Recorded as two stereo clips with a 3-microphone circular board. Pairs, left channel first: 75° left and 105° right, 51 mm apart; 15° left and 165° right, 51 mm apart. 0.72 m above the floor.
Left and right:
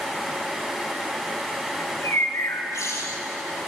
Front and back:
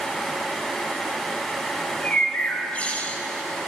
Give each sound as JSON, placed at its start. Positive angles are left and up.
{"t": 1.8, "sound": "a bird", "azimuth_deg": 80, "distance_m": 2.0}